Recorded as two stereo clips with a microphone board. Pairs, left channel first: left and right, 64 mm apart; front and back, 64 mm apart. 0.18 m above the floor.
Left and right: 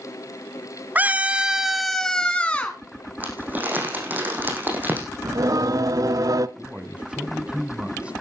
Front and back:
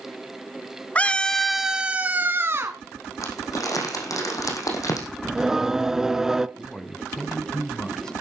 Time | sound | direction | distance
0.9 | a scream | 50° right | 1.2 m
3.2 | crumpling | 30° right | 5 m
5.2 | singing | 100° right | 0.5 m
6.6 | a man speaking | 60° right | 1.4 m